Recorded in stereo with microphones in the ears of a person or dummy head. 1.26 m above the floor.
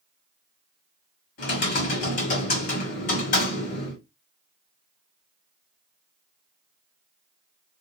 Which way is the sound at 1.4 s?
55° left (ahead or behind).